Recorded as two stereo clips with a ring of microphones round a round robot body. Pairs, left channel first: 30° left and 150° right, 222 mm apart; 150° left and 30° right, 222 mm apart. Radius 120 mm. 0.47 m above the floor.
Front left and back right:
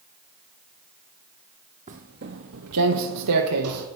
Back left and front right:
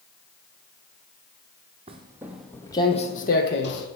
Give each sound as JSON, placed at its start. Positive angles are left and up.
{"t": 1.9, "sound": "footsteps", "azimuth_deg": -95, "distance_m": 1.0}